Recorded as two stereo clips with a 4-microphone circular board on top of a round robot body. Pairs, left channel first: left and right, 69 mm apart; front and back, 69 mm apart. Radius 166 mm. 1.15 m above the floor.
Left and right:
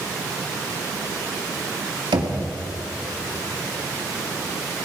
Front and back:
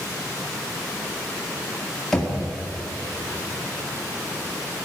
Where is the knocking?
85° right, 1.9 m.